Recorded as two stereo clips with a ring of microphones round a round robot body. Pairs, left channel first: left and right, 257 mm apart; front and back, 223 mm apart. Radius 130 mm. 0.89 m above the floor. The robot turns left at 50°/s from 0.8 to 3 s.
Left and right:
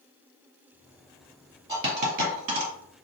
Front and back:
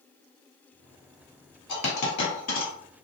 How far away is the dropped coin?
About 1.9 m.